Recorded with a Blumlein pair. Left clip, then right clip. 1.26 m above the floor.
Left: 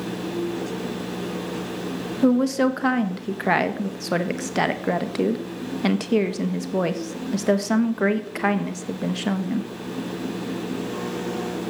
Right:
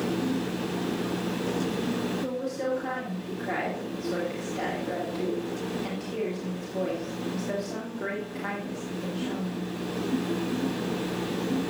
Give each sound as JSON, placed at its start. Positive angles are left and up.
{"t": 2.2, "sound": "a woman speaking", "azimuth_deg": 55, "distance_m": 1.1}